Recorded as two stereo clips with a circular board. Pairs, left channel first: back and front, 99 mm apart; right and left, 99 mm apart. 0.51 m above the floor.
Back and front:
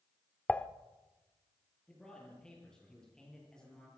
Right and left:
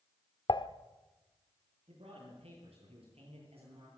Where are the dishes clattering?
105° right, 0.8 m.